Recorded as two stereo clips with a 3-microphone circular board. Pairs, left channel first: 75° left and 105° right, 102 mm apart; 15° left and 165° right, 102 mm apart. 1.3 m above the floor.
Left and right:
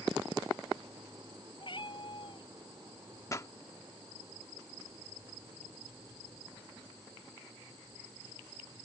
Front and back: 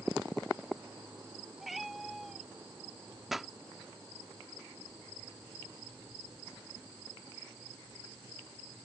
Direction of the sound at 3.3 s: 110° left.